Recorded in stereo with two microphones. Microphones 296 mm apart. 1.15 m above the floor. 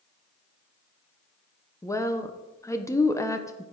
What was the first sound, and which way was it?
A woman speaking, 10° left (ahead or behind).